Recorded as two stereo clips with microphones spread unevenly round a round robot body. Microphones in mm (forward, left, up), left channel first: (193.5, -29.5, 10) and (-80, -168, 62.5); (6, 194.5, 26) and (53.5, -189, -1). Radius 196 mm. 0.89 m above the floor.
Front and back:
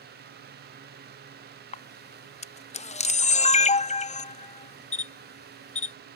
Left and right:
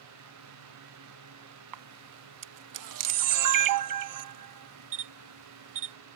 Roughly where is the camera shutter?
Ahead right.